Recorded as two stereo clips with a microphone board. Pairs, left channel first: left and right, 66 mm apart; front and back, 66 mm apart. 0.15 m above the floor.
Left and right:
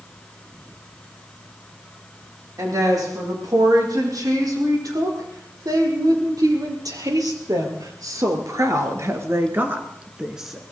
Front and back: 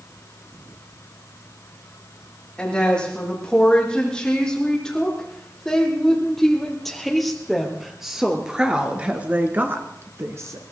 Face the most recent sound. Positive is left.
turn(degrees=-175)